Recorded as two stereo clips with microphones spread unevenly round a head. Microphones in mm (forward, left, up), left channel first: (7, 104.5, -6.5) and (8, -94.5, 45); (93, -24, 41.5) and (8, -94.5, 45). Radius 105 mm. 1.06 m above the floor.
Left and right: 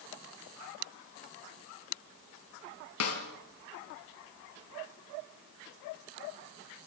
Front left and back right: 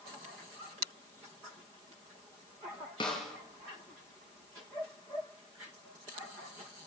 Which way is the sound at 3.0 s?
105° left.